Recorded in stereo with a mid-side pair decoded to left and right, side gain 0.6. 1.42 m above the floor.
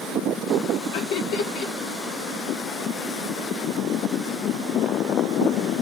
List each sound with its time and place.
0.9 s laughter: 70° left, 1.5 m